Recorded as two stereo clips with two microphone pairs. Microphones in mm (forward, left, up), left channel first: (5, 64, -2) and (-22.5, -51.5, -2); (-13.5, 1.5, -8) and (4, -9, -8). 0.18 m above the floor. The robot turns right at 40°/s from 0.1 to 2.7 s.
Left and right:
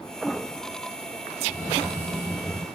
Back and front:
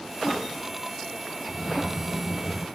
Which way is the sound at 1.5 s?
105° right.